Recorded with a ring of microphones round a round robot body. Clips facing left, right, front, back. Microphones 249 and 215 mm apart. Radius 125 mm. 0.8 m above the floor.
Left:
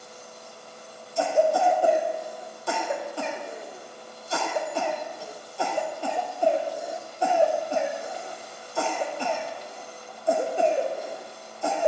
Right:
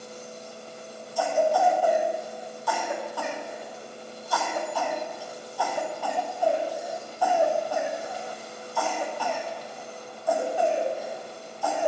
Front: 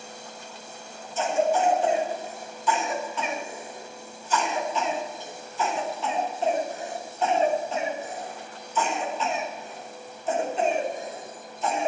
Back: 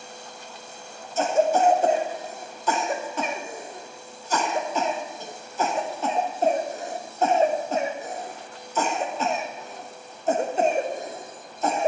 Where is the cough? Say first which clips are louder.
Left 1 dB, back 3 dB; 150° left, 1.2 m.